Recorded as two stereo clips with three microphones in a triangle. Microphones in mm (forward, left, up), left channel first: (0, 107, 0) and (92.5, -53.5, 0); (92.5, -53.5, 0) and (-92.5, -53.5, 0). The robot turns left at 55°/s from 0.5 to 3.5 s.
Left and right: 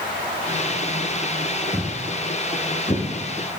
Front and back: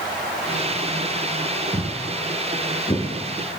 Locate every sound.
1.7 s footsteps: 120° right, 0.6 m; by 3.6 s 20° left, 1.2 m